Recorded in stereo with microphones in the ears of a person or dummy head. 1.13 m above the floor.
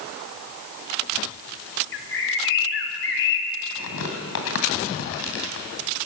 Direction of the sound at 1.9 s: 65° left (ahead or behind).